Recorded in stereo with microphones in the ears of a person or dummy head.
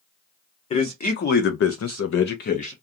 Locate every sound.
0.7 s a man speaking: 30° left (ahead or behind), 1.1 m; by 2.7 s 40° left (ahead or behind), 0.9 m